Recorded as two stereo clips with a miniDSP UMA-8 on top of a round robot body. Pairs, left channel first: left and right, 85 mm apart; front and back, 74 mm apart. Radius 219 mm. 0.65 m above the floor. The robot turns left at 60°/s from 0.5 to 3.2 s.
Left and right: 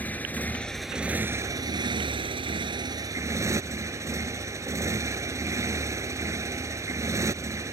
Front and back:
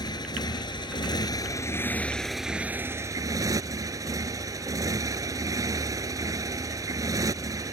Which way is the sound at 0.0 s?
20° left.